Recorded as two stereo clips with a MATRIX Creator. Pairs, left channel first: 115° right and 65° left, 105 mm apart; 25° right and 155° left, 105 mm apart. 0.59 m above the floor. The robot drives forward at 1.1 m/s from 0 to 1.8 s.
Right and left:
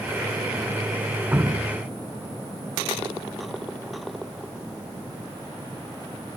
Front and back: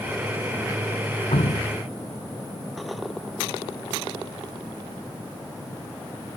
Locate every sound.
1.3 s dripping: 10° right